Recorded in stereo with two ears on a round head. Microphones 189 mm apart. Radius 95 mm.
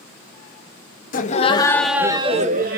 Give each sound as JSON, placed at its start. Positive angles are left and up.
{"t": 1.1, "sound": "laughter", "side_deg": 40, "distance_m": 1.3}